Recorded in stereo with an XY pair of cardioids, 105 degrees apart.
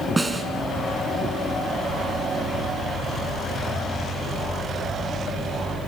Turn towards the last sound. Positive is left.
turn(degrees=-15)